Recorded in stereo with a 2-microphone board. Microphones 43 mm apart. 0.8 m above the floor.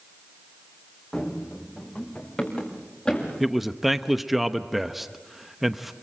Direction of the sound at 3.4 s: 5° right (ahead or behind).